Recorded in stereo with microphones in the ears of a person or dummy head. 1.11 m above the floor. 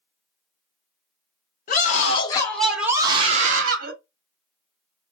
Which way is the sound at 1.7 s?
45° left (ahead or behind).